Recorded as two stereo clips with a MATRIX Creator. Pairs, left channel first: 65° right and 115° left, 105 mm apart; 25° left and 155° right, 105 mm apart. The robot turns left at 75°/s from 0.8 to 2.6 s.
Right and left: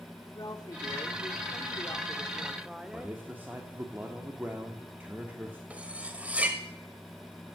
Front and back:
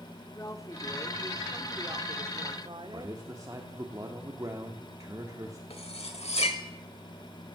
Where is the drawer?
No drawer in this recording.